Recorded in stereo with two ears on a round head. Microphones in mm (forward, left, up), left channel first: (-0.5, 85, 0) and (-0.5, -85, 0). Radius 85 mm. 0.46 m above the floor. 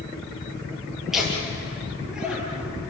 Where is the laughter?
Centre (ahead or behind), 8.5 m; by 2.8 s 5° right (ahead or behind), 9 m.